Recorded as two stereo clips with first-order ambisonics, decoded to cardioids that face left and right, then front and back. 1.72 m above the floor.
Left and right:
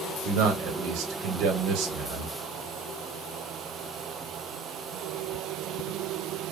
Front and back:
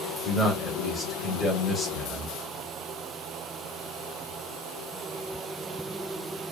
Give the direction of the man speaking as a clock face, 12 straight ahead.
3 o'clock.